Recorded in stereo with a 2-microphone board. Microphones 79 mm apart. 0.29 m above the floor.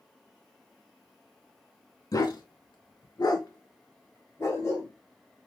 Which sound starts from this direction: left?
A dog barking, at 2.1 s.